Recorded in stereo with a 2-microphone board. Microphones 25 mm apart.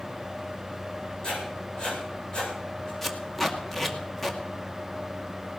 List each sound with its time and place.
1.2 s writing: 35° left (ahead or behind), 8.5 m
3.0 s tape being pulled: 5° left (ahead or behind), 2 m